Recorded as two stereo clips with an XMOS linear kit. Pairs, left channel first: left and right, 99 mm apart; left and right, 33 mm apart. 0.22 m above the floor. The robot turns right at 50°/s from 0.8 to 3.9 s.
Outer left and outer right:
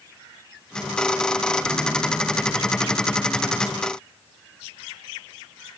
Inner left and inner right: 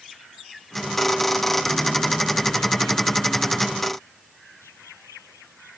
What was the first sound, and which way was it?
Only background noise.